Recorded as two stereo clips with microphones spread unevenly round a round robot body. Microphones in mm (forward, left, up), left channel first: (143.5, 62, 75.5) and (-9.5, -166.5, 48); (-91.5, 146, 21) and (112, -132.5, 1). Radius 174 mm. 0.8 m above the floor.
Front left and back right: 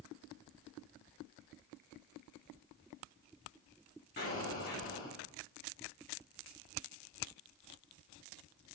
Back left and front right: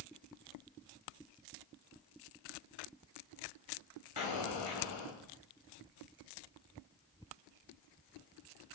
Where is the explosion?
115° left, 1.6 m.